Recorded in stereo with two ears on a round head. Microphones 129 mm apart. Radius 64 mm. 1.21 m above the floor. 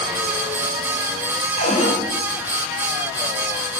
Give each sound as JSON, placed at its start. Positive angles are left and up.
{"t": 1.6, "sound": "a cupboard door", "side_deg": 55, "distance_m": 6.0}